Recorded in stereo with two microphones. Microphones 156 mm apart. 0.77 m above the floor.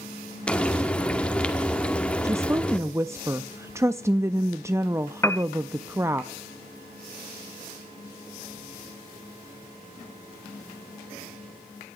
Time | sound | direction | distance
0.5 | frying | 5° left (ahead or behind) | 2 m
2.2 | a woman speaking | 15° right (ahead or behind) | 0.5 m
5.2 | a piano | 15° left (ahead or behind) | 0.8 m